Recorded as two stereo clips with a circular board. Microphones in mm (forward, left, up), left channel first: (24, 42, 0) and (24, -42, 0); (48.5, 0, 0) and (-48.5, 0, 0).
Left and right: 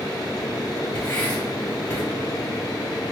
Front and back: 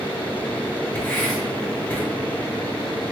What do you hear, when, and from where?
0.9 s writing: 35° left, 1.7 m